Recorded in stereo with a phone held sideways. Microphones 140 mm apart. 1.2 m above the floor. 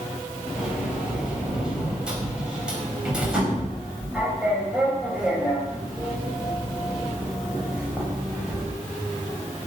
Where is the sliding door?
5° right (ahead or behind), 5.5 m.